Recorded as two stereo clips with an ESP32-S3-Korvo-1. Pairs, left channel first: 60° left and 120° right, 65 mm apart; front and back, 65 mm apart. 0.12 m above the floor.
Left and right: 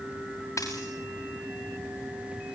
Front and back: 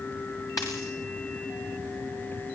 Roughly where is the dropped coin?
Ahead left.